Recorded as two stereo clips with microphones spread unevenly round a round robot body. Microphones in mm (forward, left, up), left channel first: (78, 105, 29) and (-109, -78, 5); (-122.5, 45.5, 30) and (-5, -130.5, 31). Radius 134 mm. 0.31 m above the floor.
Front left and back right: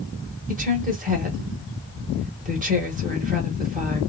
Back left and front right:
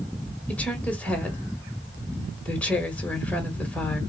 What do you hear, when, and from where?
0.5 s a woman speaking: 155° right, 1.4 m